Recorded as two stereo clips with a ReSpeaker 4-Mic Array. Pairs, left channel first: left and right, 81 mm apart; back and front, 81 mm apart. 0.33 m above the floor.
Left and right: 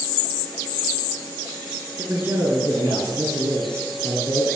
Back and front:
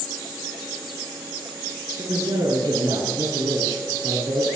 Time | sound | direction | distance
2.0 | a man speaking | 25° right | 5.5 m